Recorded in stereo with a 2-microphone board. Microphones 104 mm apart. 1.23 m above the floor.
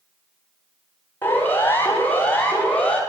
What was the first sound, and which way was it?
A siren, 20° left (ahead or behind).